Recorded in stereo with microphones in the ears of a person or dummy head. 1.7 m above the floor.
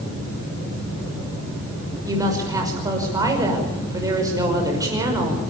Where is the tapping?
No tapping in this recording.